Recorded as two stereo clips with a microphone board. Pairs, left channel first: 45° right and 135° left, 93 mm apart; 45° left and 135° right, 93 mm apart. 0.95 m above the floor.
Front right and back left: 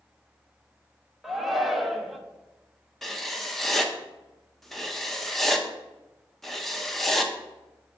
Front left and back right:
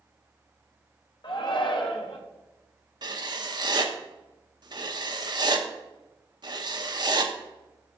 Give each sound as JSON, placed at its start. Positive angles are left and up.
{"t": 1.2, "sound": "a shout", "azimuth_deg": 45, "distance_m": 1.1}
{"t": 3.0, "sound": "writing", "azimuth_deg": -130, "distance_m": 0.8}